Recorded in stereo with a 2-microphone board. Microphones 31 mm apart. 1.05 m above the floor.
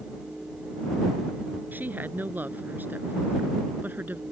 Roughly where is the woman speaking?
Right.